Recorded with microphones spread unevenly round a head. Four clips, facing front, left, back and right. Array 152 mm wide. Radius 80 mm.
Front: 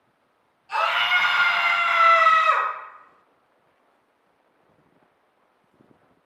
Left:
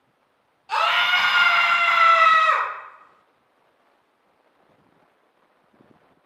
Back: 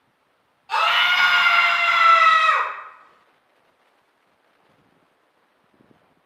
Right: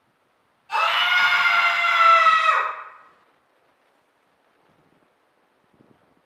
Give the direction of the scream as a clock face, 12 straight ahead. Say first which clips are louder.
Even, back 3 dB; 8 o'clock.